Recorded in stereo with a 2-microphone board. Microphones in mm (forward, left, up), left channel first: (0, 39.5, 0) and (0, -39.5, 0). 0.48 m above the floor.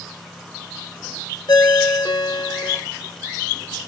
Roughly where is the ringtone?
Left.